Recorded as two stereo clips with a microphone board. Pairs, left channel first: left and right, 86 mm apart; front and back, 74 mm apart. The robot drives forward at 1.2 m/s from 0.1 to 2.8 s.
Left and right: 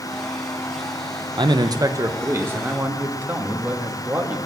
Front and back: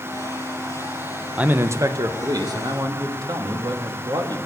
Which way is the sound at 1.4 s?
110° right.